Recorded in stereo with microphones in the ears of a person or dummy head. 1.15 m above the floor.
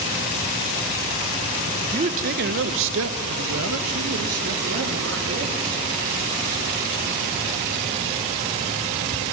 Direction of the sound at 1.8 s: 30° right (ahead or behind).